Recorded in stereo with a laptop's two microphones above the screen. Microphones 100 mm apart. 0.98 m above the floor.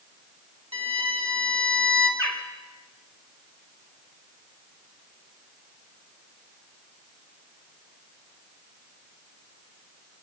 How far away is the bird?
About 2 m.